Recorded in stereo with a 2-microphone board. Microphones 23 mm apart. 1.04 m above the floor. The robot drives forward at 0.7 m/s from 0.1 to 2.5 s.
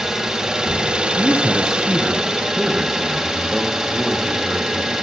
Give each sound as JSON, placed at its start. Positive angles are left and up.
{"t": 0.0, "sound": "an engine running", "side_deg": -25, "distance_m": 1.1}
{"t": 1.2, "sound": "a man speaking", "side_deg": -20, "distance_m": 0.6}